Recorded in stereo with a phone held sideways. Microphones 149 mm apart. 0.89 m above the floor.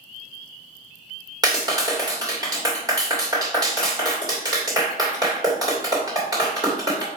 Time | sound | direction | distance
1.4 | a clap | 25° right (ahead or behind) | 2.5 m